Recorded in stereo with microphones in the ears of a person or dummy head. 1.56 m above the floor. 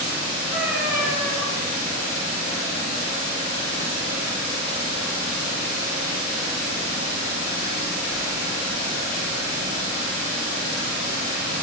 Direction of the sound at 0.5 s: 10° right (ahead or behind).